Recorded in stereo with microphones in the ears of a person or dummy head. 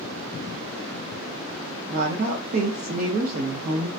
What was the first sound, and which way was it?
A woman speaking, 45° right (ahead or behind).